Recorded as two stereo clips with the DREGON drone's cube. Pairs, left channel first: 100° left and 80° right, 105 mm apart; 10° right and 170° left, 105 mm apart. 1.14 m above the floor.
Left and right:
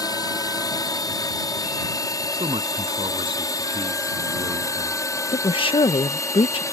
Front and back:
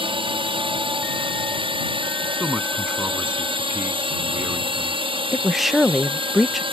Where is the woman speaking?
80° left.